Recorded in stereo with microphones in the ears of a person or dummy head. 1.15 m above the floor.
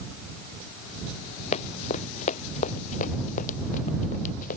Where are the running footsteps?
35° left (ahead or behind); by 4.6 s 45° left (ahead or behind).